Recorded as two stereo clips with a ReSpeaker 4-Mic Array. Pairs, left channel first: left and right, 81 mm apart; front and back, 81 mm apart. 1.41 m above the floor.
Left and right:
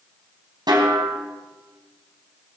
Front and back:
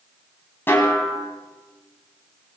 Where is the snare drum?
60° right, 3.5 m.